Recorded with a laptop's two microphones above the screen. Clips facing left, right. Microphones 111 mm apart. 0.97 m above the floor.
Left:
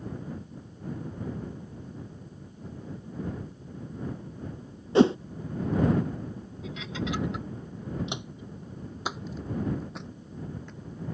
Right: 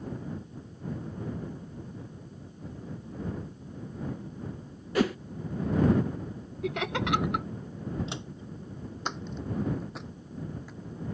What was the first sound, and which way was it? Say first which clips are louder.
A whoosh: left 7 dB; 25° left (ahead or behind).